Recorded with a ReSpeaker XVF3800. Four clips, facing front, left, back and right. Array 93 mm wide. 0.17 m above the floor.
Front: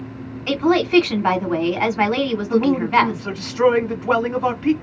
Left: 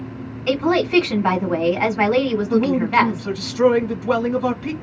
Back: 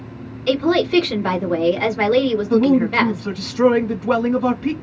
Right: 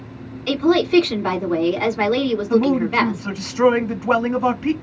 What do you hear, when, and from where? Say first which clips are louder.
0.5 s a woman speaking: right 2 dB, back 1 dB; 35° left, 1.8 m
2.5 s a man speaking: even, back 1 dB; 60° right, 1.1 m